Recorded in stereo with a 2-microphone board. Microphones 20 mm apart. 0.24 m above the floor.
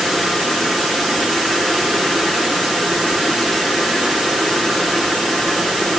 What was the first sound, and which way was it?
Only background noise.